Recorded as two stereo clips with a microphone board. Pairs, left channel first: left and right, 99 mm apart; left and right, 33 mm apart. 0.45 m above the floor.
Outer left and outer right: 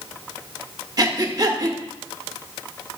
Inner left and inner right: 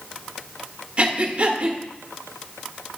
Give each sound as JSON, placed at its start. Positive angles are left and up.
{"t": 1.0, "sound": "breathing", "side_deg": -40, "distance_m": 1.0}